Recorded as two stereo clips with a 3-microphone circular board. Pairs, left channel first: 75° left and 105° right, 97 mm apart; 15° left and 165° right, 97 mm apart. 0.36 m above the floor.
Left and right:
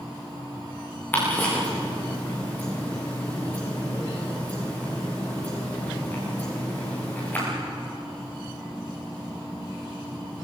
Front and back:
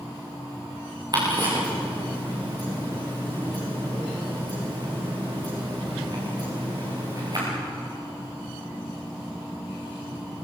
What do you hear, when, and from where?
1.1 s ticking: 145° left, 9.5 m